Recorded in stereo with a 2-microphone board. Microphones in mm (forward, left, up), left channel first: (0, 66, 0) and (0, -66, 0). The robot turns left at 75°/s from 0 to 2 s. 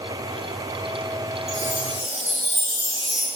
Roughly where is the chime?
Behind.